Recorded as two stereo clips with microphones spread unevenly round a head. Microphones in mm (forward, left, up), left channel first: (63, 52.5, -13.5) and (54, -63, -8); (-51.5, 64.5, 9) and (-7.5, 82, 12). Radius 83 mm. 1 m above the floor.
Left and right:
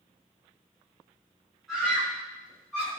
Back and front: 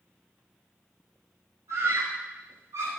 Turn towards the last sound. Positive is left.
turn(degrees=-10)